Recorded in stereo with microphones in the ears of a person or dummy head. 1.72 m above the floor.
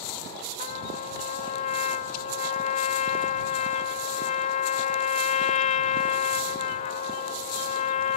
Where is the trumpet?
45° left (ahead or behind).